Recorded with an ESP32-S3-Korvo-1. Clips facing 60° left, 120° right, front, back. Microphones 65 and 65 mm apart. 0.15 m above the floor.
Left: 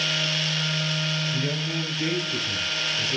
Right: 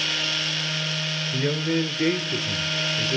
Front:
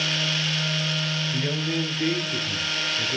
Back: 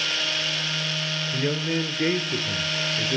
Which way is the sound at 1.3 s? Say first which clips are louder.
Right 4 dB, back 3 dB; 115° right.